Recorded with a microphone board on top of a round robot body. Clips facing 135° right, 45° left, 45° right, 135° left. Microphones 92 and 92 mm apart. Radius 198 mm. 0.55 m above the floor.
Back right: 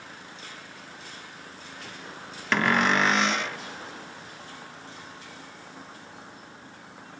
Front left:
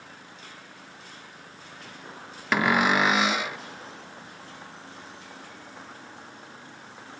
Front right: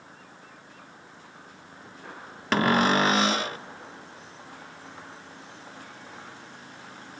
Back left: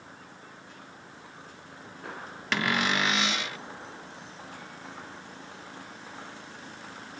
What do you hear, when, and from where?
2.5 s a cupboard door: 35° right